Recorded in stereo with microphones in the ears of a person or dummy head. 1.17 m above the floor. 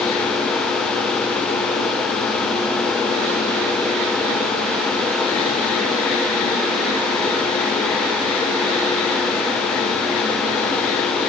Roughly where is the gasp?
I don't hear a gasp.